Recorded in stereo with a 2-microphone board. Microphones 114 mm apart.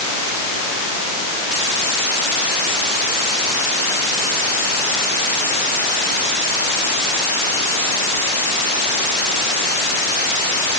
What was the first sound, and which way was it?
Only background noise.